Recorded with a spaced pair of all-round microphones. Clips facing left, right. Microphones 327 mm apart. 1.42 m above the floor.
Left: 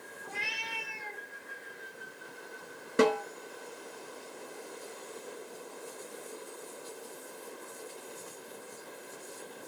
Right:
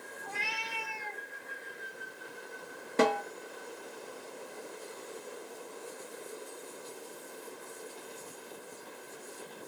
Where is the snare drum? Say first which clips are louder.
Left 3 dB; 15° left (ahead or behind), 0.7 m.